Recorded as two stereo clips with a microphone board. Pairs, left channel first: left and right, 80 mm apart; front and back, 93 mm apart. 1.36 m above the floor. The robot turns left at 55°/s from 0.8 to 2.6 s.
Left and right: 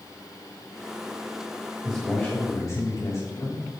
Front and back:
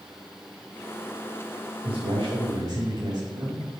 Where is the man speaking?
Straight behind, 3.5 m; by 3.6 s 140° left, 3.5 m.